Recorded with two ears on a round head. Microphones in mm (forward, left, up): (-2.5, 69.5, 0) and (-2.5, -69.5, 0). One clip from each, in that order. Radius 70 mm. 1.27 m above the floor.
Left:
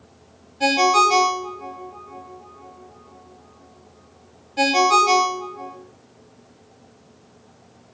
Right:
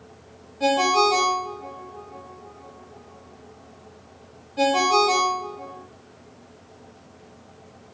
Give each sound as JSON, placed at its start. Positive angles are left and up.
{"t": 0.6, "sound": "a ringtone", "side_deg": 35, "distance_m": 0.8}